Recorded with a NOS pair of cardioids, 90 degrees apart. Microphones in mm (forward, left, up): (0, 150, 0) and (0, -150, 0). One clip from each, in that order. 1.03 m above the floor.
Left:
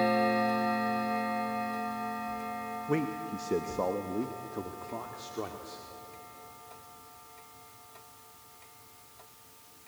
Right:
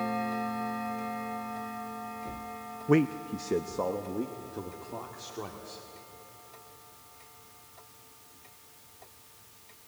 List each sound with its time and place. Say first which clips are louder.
2.9 s a man speaking: right 7 dB; 30° right, 0.5 m; by 5.9 s 20° left, 2.5 m